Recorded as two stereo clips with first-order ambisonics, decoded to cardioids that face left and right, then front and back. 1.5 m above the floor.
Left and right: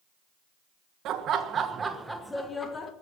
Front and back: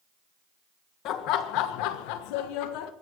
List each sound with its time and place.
1.1 s laughter: 40° right, 1.4 m; by 2.9 s 25° left, 1.4 m